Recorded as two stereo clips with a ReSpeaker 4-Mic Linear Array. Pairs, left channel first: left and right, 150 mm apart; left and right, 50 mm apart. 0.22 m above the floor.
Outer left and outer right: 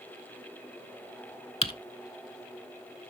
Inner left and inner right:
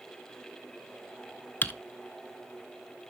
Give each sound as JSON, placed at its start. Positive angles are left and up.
{"t": 1.6, "sound": "typing on a keyboard", "side_deg": 40, "distance_m": 0.7}